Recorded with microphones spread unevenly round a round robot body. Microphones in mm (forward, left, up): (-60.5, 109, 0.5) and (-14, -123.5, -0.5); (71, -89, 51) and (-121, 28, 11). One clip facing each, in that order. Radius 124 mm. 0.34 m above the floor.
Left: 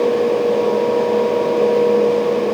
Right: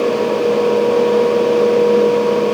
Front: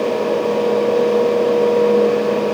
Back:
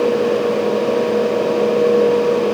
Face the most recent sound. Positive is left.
No sound to turn to.